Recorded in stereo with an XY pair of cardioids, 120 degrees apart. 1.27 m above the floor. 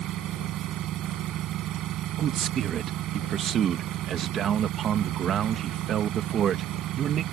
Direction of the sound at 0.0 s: 70° right.